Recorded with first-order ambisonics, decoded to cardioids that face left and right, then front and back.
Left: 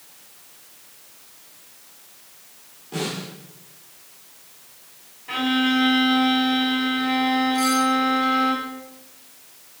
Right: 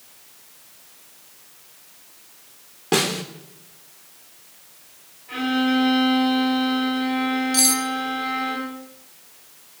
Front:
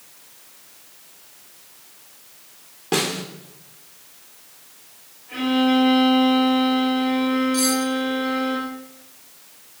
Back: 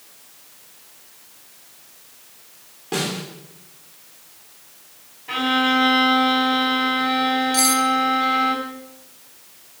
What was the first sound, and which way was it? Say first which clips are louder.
A snare drum: right 8 dB, front 3 dB; 70° right.